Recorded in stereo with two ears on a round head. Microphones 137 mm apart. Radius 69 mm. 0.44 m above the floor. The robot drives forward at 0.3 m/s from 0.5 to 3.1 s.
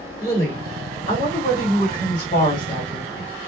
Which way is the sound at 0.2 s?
40° left (ahead or behind).